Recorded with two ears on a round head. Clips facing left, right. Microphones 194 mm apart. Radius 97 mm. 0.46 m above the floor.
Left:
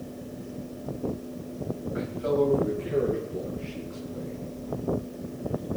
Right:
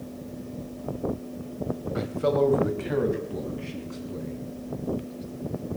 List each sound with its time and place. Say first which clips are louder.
1.9 s a man speaking: right 2 dB; 55° right (ahead or behind), 2 m